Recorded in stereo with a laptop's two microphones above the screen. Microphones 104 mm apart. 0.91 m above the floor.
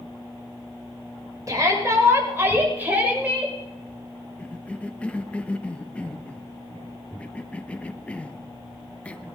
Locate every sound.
1.5 s a shout: 35° right (ahead or behind), 5 m; by 3.6 s 15° right (ahead or behind), 5 m
4.4 s a cough: 10° left (ahead or behind), 0.9 m